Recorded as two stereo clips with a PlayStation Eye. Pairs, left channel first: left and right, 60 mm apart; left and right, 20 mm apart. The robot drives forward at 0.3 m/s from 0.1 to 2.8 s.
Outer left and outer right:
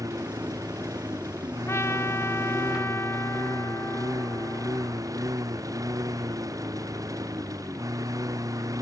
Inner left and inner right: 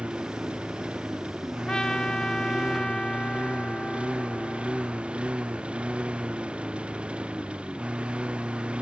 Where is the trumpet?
50° left (ahead or behind).